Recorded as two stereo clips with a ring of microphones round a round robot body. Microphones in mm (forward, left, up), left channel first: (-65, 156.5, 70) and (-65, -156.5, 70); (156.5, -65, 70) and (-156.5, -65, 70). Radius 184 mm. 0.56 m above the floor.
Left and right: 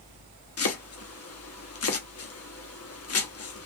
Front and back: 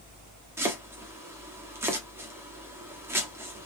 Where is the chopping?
100° left, 1.3 m.